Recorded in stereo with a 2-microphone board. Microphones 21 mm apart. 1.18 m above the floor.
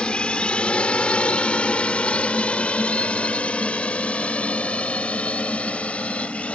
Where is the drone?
50° left (ahead or behind); by 6.5 s 80° left.